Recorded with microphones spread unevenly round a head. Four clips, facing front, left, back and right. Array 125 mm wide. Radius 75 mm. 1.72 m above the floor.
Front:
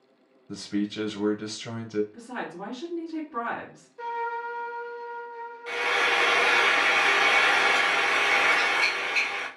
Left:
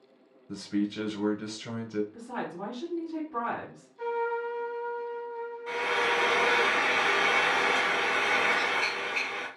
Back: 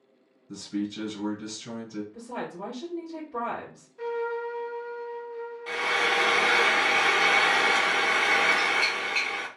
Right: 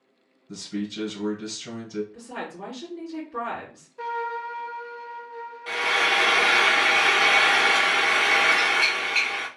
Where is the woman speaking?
90° left, 2 m.